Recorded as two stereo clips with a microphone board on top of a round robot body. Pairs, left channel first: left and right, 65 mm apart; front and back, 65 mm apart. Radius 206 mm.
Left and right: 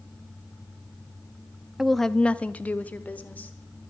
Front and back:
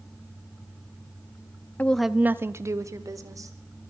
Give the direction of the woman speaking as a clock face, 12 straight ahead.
12 o'clock.